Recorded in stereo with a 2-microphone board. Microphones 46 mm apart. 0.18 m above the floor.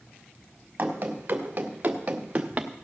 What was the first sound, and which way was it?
Running footsteps, 45° right (ahead or behind).